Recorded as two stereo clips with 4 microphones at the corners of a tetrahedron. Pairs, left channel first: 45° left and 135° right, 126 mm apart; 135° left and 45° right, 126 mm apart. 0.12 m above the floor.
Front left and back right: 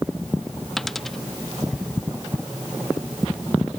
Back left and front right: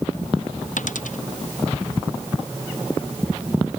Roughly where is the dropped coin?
Behind left.